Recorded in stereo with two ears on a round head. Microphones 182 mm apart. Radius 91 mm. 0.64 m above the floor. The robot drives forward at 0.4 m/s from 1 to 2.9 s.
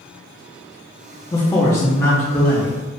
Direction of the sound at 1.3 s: 15° left (ahead or behind).